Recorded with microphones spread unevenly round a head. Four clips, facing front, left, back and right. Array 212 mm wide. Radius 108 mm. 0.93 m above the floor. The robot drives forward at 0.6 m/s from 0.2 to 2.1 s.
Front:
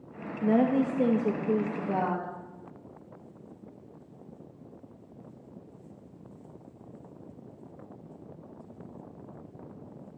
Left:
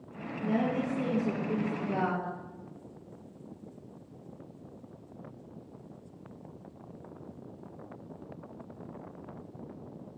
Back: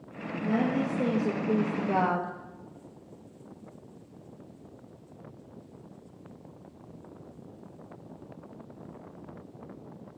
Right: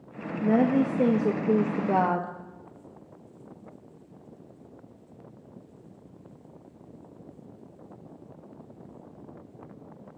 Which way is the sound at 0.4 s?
55° right.